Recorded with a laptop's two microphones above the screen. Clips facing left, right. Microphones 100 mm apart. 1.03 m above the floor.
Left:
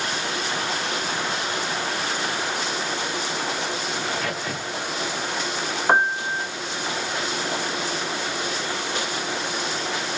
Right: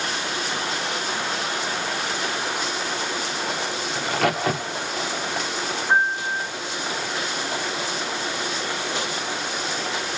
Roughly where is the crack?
Right.